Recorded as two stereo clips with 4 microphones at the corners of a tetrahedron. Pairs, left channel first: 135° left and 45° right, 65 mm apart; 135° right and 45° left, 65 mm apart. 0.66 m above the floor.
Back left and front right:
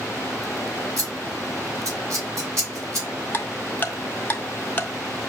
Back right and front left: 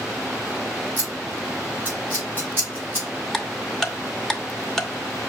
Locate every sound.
1.0 s scissors: 10° right, 3 m
3.3 s ticking: 150° left, 0.7 m